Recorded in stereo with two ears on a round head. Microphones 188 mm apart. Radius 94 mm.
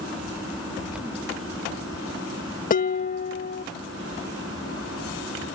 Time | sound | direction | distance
2.7 | dishes clattering | 40° left (ahead or behind) | ?